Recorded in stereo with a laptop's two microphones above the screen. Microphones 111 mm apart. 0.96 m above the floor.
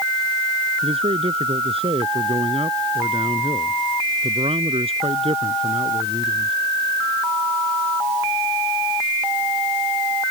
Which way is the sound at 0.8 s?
65° right (ahead or behind).